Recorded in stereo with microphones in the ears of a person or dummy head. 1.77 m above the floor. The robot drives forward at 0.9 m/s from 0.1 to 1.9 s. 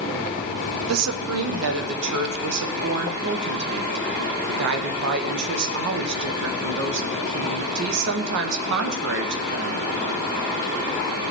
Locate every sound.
0.9 s a woman speaking: 75° right (ahead or behind), 1.4 m; by 9.9 s 65° right (ahead or behind), 1.5 m